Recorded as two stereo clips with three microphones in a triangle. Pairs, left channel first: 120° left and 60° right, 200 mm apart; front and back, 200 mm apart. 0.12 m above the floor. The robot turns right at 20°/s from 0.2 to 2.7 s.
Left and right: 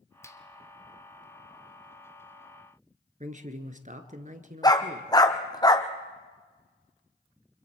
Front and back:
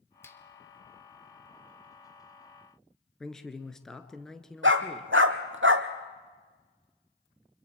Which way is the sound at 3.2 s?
85° right.